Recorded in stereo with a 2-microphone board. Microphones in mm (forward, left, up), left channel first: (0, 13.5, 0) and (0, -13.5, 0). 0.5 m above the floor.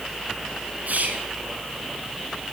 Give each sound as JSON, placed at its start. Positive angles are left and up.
{"t": 0.9, "sound": "whispering", "side_deg": -75, "distance_m": 5.0}